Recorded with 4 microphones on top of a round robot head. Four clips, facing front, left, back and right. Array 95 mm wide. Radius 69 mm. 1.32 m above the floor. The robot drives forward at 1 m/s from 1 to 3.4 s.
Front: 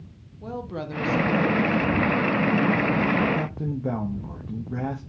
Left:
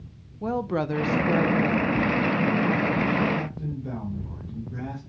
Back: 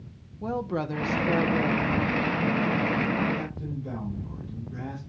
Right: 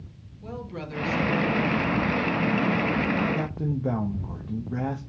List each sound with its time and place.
0.4 s a woman speaking: 105° left, 0.8 m; by 2.0 s 150° left, 1.4 m
3.3 s a man speaking: 45° right, 1.4 m